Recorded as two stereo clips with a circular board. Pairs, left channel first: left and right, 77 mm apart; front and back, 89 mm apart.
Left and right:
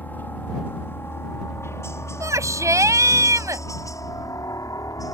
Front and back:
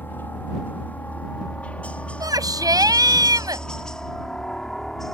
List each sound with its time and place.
0.0 s a helicopter: 45° left; by 5.2 s 85° left
2.2 s a shout: 135° right